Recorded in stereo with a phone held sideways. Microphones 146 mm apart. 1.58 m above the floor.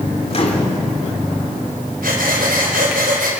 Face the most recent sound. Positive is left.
turn(degrees=-80)